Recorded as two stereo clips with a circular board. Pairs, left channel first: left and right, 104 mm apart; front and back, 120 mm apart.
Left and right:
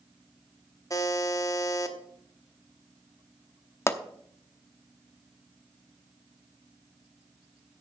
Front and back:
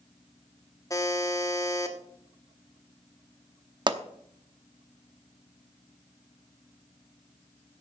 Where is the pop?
145° left, 0.8 m.